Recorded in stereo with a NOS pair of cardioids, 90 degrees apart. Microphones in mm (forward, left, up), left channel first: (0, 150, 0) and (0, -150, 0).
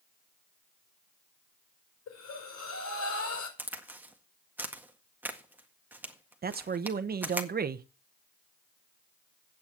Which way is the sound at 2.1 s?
60° left.